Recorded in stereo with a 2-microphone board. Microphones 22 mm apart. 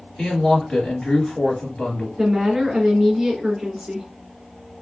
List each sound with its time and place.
0.2 s a woman speaking: 35° left (ahead or behind), 2.0 m
2.2 s a woman speaking: 25° right (ahead or behind), 1.7 m